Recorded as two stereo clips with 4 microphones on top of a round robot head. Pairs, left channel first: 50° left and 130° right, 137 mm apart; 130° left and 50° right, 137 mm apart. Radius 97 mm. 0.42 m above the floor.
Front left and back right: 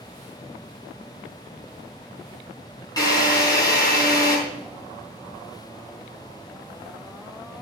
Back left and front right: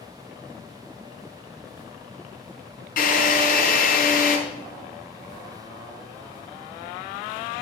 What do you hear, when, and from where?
3.0 s a drill: 115° left, 4.5 m